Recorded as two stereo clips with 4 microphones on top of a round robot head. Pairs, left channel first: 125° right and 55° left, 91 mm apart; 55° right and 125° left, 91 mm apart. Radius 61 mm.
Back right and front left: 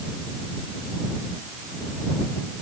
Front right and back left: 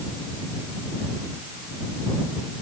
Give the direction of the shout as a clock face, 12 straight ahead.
No shout in this recording.